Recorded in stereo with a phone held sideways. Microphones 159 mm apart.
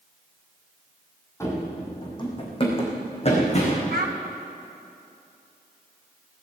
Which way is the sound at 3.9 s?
65° right (ahead or behind).